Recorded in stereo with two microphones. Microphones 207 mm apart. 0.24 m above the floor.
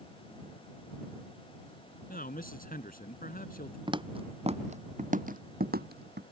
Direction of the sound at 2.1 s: 45° left (ahead or behind).